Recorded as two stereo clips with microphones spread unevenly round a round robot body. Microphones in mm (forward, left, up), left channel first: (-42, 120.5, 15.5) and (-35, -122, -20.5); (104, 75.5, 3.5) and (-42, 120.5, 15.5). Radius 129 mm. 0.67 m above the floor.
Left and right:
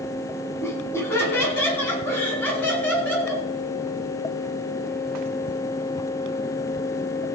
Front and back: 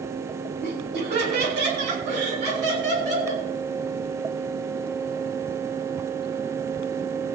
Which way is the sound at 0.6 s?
170° left.